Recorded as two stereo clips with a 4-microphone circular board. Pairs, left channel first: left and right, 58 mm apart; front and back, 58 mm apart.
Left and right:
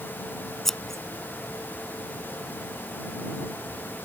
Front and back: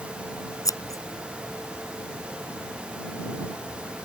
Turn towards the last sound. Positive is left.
turn(degrees=5)